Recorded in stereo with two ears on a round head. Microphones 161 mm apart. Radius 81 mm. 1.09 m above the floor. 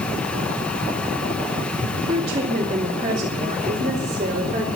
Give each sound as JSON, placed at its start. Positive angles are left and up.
{"t": 2.1, "sound": "a woman speaking", "side_deg": -35, "distance_m": 2.0}